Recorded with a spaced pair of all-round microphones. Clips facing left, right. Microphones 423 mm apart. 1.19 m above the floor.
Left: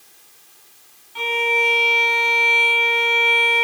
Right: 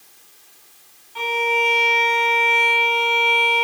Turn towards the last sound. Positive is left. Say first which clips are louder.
# even
turn(degrees=35)  # may be behind; listen again after turning